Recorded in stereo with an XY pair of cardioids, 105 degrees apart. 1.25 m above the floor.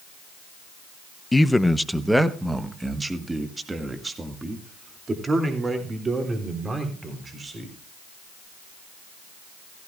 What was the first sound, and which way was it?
A man speaking, 15° left.